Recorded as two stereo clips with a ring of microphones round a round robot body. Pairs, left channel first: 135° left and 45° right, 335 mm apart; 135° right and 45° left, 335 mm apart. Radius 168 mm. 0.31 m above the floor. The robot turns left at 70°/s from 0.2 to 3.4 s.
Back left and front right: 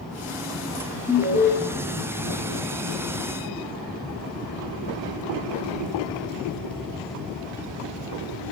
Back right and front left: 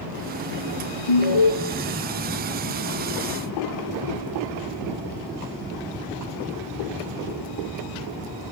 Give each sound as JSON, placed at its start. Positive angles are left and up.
{"t": 1.1, "sound": "an alarm", "azimuth_deg": -140, "distance_m": 4.5}